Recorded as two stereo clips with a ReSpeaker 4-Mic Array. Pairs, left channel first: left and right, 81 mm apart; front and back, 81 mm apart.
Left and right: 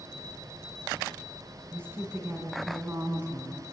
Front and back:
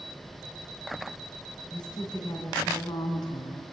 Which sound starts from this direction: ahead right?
A woman speaking, at 1.7 s.